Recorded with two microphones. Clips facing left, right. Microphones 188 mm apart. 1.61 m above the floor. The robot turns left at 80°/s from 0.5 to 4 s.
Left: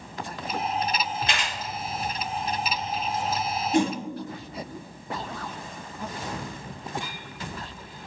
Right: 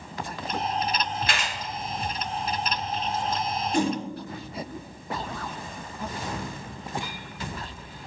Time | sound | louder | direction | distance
1.3 | a camera shutter | even | 25° left (ahead or behind) | 2.0 m
3.7 | a whoosh | left 2 dB | 20° left (ahead or behind) | 1.7 m